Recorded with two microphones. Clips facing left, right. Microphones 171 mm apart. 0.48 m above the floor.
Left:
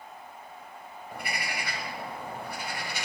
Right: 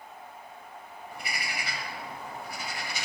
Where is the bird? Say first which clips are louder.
Left 3 dB; 55° left (ahead or behind), 1.3 m.